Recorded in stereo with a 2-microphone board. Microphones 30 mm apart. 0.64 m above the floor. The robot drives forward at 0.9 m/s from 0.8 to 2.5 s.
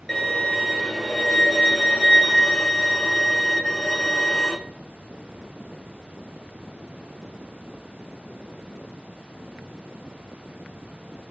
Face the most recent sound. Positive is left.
turn(degrees=30)  # may be behind; listen again after turning